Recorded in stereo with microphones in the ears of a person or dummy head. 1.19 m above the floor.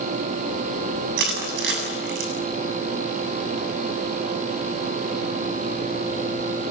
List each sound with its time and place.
1.2 s crushing: 65° right (ahead or behind), 7 m